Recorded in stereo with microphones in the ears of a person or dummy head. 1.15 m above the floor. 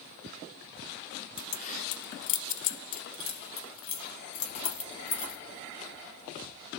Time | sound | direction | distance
1.4 | keys jangling | 30° left (ahead or behind) | 0.6 m